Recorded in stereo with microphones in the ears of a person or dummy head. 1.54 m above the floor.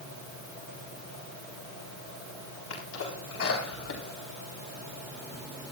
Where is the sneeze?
90° left, 4 m.